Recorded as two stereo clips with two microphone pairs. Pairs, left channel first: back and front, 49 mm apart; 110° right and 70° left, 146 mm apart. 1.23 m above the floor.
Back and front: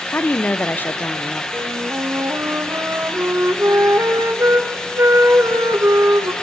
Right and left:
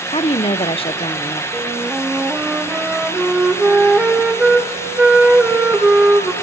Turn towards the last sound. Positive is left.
turn(degrees=-10)